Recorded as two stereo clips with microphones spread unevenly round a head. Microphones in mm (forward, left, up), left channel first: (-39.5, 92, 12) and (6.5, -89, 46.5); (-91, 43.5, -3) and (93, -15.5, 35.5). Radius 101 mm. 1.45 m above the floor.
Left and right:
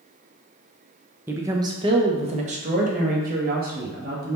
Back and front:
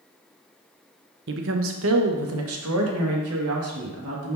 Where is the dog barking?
I don't hear a dog barking.